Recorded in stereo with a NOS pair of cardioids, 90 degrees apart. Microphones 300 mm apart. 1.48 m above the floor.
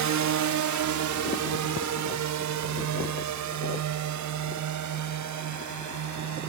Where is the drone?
65° right; by 6.5 s 70° right.